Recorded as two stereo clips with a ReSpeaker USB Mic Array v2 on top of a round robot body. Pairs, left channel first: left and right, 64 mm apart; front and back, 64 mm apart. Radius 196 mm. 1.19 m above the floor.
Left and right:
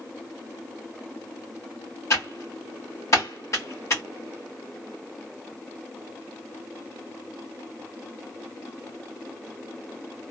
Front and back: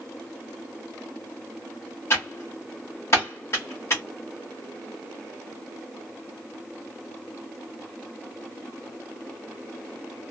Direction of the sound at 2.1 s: 45° left.